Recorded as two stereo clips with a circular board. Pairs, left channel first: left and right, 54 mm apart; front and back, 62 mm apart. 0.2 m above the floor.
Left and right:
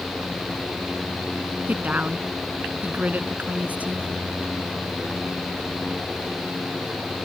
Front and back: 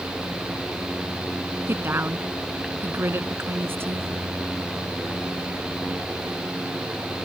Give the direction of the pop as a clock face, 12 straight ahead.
I don't hear a pop.